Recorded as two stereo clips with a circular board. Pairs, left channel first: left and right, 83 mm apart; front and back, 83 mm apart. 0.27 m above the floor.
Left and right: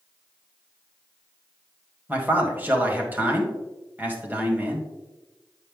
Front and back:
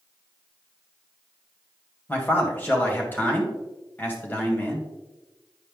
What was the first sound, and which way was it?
A man speaking, 45° right.